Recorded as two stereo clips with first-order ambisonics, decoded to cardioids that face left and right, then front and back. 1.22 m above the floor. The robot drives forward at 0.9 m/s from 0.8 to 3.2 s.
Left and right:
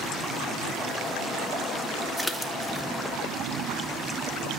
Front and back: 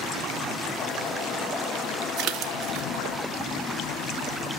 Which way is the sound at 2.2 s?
Straight behind.